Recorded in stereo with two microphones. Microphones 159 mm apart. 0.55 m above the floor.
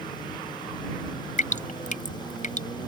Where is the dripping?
55° left (ahead or behind).